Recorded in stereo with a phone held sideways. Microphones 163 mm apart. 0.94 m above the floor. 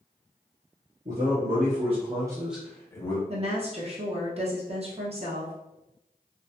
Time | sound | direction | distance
1.1 | a man speaking | 55° right (ahead or behind) | 1.3 m
3.3 | a woman speaking | 40° right (ahead or behind) | 0.7 m